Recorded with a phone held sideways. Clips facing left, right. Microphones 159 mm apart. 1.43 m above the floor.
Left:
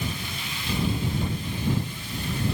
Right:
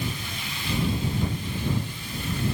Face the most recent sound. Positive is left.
No sound to turn to.